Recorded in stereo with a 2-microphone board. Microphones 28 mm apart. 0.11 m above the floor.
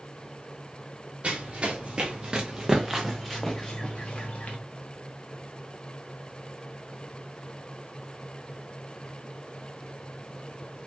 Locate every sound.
1.2 s running footsteps: 40° right (ahead or behind), 1.4 m; by 4.6 s 55° left (ahead or behind), 0.8 m